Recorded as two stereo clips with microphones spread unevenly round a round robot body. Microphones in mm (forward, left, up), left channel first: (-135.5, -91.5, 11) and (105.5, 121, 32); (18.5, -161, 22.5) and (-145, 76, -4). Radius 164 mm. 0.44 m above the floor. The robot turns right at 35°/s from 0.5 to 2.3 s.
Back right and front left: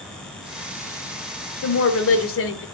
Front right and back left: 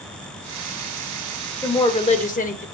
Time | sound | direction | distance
1.6 | a woman speaking | 140° right | 1.6 m